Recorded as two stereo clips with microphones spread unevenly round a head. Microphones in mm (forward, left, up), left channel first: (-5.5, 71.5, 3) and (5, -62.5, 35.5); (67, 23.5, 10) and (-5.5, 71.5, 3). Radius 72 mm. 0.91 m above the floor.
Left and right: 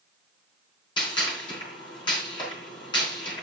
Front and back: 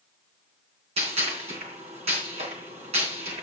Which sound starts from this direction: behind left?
A gunshot, at 1.0 s.